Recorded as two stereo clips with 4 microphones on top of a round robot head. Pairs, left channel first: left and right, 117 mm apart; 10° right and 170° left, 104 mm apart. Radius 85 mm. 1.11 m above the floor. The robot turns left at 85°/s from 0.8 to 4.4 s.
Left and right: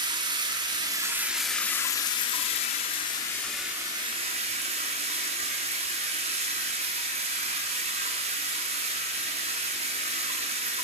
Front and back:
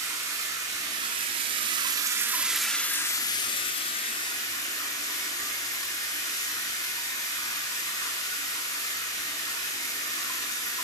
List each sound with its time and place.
0.0 s running water: 125° right, 0.7 m; by 10.8 s 70° right, 0.7 m